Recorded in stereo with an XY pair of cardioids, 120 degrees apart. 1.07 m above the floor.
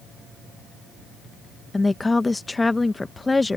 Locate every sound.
1.7 s a woman speaking: 15° left